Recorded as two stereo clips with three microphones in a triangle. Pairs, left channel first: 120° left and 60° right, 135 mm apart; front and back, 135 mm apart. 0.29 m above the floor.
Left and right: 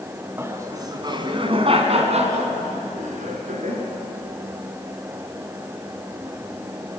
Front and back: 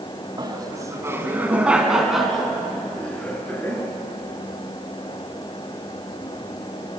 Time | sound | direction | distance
0.4 | laughter | 130° right | 2.5 m